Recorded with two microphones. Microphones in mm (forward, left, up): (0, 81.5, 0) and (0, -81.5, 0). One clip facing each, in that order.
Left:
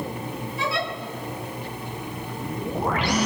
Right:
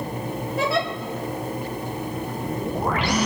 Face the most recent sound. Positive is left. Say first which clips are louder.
# right 5 dB
turn(degrees=-70)  # may be behind; listen again after turning